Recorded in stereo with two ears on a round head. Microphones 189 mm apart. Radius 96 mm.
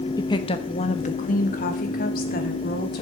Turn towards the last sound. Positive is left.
turn(degrees=45)  # may be behind; listen again after turning